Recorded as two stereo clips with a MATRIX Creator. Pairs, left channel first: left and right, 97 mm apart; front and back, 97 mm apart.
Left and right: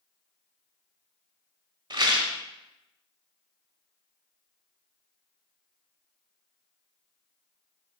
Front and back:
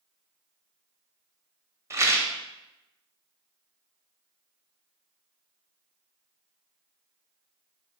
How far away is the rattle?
About 0.7 m.